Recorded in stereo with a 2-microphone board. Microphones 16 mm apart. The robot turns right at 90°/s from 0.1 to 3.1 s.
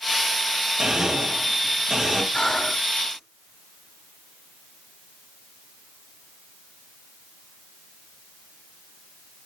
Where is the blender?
140° right, 3.5 m; by 2.2 s 10° right, 3.5 m.